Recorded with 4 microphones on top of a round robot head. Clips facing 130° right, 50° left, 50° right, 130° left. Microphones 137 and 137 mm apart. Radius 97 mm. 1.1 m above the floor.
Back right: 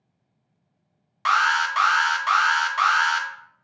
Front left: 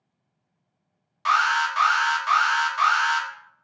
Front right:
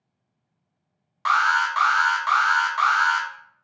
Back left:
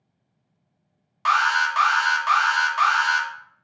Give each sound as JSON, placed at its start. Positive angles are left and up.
{"t": 1.2, "sound": "an alarm", "azimuth_deg": -150, "distance_m": 0.7}